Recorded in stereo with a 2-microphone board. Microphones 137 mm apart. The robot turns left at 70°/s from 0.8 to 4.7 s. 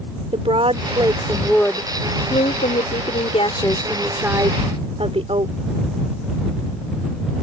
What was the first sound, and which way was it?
A woman speaking, 135° right.